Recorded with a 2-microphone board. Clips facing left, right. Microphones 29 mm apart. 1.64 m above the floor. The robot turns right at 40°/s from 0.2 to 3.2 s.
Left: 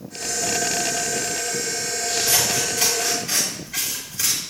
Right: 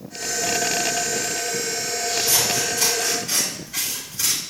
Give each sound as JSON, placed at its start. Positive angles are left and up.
{"t": 2.1, "sound": "scissors", "side_deg": 45, "distance_m": 4.5}